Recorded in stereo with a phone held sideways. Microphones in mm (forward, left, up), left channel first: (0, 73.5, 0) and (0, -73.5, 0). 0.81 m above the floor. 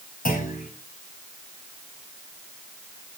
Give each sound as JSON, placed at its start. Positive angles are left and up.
{"t": 0.2, "sound": "a clunk", "side_deg": 70, "distance_m": 4.0}